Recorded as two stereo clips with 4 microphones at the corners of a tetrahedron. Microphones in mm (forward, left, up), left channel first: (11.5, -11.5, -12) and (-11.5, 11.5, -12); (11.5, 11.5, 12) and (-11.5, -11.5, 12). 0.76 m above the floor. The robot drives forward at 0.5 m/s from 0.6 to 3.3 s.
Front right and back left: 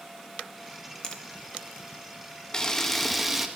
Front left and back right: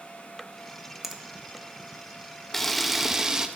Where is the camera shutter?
20° right, 0.6 m; by 3.5 s 155° right, 0.6 m.